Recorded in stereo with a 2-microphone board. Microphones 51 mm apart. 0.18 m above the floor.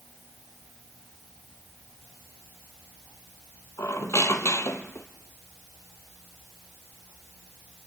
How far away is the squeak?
About 1.7 m.